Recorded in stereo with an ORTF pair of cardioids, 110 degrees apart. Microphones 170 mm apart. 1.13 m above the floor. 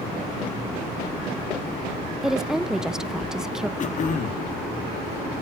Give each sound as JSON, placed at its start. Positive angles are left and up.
{"t": 2.2, "sound": "a woman speaking", "azimuth_deg": -5, "distance_m": 0.7}
{"t": 3.8, "sound": "throat clearing", "azimuth_deg": 45, "distance_m": 1.5}